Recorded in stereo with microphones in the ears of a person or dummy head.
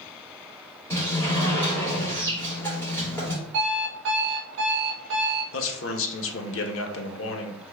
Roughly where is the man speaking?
Left.